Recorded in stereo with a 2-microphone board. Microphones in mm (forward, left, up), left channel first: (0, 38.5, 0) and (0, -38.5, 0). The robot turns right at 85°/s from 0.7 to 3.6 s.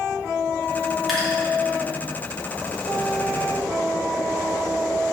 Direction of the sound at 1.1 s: Centre (ahead or behind).